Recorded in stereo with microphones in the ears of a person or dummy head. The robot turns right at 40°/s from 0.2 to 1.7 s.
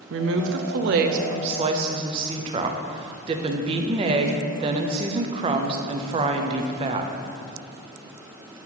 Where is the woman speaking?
95° right, 0.5 m; by 7.1 s 35° right, 0.5 m.